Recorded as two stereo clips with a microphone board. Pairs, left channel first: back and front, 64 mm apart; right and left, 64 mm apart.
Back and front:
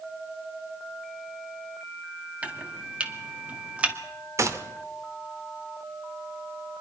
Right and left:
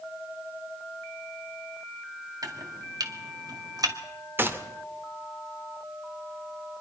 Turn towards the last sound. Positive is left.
turn(degrees=35)